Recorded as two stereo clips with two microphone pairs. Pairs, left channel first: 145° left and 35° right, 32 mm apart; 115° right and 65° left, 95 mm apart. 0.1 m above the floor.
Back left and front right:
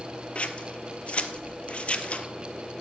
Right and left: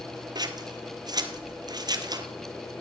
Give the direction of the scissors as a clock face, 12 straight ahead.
9 o'clock.